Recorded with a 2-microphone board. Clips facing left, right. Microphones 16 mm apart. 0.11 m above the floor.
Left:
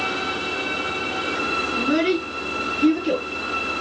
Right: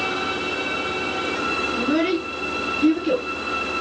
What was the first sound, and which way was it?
A child speaking, 5° left (ahead or behind).